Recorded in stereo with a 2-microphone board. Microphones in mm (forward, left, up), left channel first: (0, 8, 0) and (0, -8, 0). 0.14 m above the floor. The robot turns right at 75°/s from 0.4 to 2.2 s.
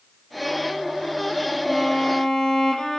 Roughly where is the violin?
Ahead.